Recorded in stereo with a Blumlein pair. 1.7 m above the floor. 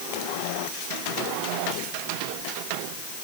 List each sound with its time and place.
Only background noise.